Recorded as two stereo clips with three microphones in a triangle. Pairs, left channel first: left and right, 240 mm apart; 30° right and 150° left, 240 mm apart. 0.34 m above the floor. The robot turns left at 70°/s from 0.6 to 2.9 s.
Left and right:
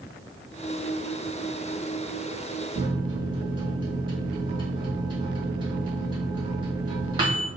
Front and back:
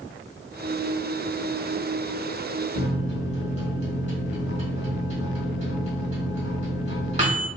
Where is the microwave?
145° right, 1.2 m; by 7.5 s 155° right, 1.2 m.